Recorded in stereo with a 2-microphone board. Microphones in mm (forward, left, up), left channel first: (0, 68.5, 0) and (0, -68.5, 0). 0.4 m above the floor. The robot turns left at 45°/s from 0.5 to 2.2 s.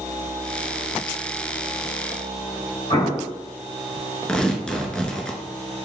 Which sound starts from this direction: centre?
Tearing paper, at 4.3 s.